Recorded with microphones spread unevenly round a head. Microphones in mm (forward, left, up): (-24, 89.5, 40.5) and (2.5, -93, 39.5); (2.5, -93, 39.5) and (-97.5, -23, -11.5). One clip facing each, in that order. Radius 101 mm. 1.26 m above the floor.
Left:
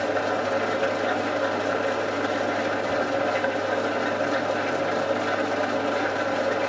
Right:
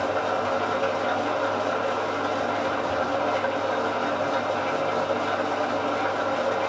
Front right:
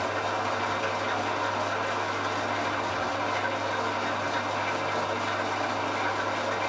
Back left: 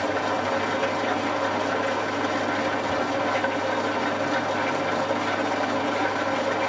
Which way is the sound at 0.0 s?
170° left.